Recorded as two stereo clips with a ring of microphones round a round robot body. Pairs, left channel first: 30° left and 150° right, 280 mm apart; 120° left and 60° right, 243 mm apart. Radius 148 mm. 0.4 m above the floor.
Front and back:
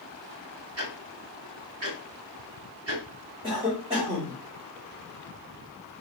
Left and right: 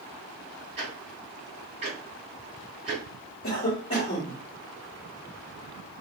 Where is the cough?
155° left, 1.4 m.